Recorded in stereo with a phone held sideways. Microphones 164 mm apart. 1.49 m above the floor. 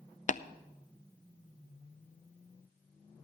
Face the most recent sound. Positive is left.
turn(degrees=50)  # may be behind; listen again after turning